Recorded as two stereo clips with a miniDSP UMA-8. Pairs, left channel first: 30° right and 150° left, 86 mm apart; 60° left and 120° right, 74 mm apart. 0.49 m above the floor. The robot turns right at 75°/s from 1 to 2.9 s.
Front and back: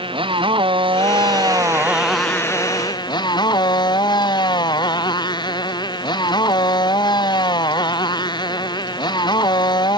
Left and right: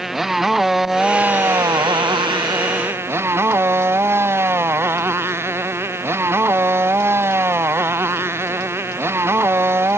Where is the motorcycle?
155° left; by 10.0 s 65° right.